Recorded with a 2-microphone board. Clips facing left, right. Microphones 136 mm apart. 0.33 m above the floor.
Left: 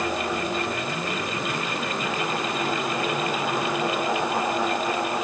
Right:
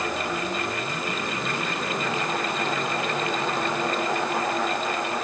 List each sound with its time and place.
Only background noise.